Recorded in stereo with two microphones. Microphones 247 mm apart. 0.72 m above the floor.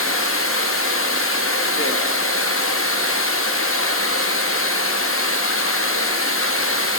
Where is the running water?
60° left (ahead or behind), 0.7 m.